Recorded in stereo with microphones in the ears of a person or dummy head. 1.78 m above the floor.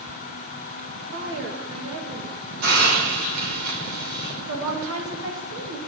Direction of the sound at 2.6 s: 65° right (ahead or behind).